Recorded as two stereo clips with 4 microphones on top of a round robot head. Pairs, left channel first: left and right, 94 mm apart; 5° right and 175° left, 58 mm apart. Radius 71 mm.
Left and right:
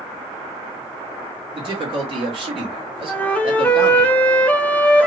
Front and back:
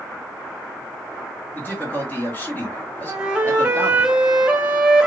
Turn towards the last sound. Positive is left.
turn(degrees=140)